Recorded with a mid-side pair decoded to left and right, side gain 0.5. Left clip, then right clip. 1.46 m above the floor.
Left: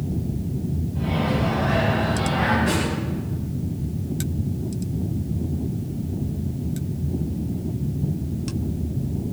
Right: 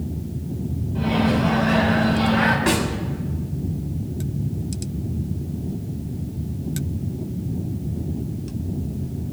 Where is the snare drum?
65° right, 6 m.